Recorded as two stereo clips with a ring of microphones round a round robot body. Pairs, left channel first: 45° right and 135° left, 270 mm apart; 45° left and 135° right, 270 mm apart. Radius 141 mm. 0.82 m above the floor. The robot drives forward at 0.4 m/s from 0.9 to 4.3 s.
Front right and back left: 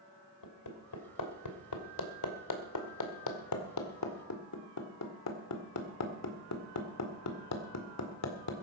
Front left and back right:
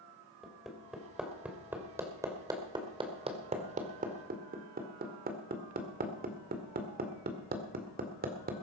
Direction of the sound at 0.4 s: 45° right.